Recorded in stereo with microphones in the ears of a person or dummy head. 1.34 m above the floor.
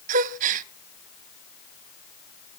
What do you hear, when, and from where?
0.1 s a gasp: 45° right (ahead or behind), 0.5 m